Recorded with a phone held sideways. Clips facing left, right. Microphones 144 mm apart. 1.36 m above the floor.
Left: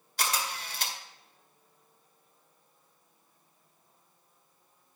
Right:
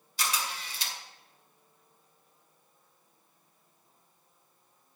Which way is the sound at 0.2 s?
65° left (ahead or behind).